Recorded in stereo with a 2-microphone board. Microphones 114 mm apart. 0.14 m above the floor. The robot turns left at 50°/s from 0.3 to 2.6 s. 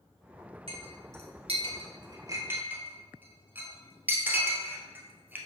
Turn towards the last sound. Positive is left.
turn(degrees=-15)  # may be behind; listen again after turning